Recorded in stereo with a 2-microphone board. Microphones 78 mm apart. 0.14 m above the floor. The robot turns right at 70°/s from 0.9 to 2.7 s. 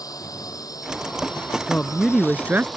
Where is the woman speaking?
155° left; by 2.7 s 135° right.